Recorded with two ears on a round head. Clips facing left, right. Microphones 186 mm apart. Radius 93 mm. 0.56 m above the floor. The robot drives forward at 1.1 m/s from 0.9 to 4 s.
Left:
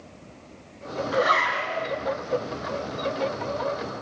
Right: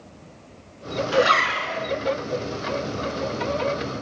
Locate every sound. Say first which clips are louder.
1.1 s a zipper: right 4 dB; 35° right (ahead or behind), 2.5 m; by 1.9 s 50° right (ahead or behind), 1.7 m